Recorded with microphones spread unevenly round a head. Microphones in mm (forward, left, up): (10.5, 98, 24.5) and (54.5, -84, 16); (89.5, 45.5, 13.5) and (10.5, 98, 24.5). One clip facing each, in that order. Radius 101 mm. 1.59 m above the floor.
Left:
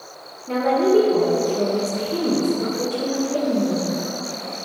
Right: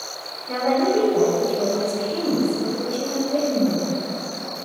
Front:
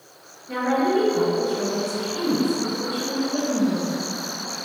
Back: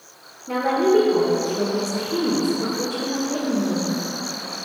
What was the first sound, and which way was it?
A woman speaking, 150° left.